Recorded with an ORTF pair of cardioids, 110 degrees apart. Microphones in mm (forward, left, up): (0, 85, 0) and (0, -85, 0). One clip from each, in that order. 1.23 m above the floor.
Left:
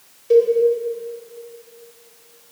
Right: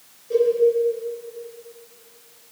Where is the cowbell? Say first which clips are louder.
Left 5 dB; 70° left, 4.5 m.